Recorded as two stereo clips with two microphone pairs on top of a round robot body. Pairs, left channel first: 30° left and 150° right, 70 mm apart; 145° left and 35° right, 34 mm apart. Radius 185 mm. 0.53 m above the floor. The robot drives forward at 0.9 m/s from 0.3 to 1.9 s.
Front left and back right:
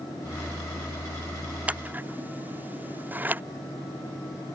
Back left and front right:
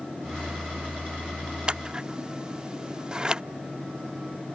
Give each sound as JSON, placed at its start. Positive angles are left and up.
{"t": 1.7, "sound": "scissors", "azimuth_deg": -80}